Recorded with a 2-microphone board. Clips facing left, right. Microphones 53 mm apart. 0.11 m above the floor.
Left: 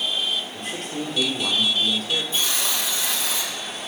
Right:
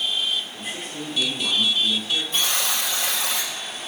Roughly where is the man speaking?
Left.